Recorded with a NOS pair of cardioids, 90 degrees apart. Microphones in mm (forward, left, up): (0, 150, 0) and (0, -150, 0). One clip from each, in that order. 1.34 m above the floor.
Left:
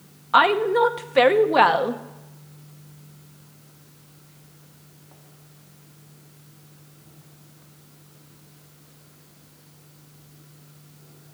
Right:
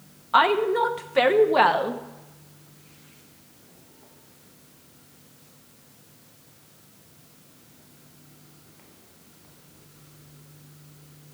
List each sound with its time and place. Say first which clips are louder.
0.3 s a woman speaking: left 2 dB; 15° left, 0.9 m